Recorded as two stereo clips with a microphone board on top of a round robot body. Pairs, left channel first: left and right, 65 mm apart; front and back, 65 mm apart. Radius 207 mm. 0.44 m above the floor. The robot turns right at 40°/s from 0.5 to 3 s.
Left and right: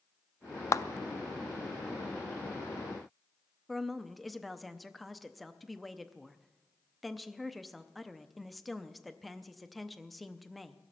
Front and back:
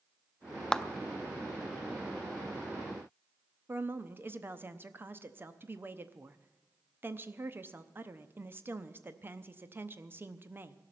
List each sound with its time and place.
0.7 s a clap: 75° left, 0.7 m; by 0.8 s 80° left, 0.7 m
3.7 s a woman speaking: straight behind, 1.1 m